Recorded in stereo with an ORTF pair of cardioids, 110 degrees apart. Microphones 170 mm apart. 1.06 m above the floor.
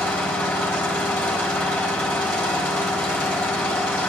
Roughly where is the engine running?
Ahead.